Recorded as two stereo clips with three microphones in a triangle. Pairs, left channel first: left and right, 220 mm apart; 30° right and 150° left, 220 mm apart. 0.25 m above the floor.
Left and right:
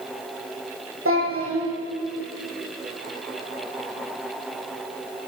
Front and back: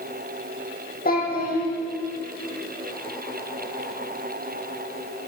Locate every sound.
1.1 s a child speaking: 80° right, 5.5 m